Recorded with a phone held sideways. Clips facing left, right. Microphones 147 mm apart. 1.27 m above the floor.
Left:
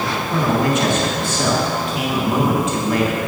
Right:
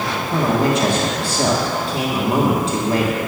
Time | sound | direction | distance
0.3 | a man speaking | 35° right (ahead or behind) | 1.4 m